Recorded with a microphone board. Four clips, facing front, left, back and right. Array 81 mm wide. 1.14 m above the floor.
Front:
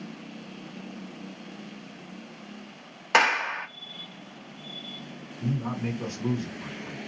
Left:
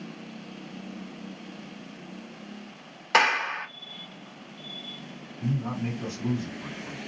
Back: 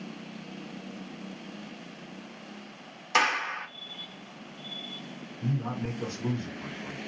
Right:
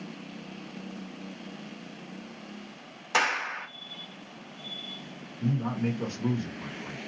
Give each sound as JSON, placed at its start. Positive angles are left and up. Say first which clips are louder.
{"t": 3.1, "sound": "a clap", "louder": "left 5 dB, front 4 dB", "azimuth_deg": 25, "distance_m": 0.9}
{"t": 5.4, "sound": "a man speaking", "louder": "right 1 dB, front 2 dB", "azimuth_deg": -85, "distance_m": 1.4}